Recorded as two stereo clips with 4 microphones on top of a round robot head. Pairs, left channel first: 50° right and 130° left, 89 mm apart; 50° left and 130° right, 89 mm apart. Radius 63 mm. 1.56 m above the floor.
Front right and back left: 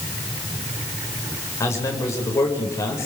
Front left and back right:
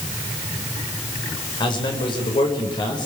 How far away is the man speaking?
About 7 m.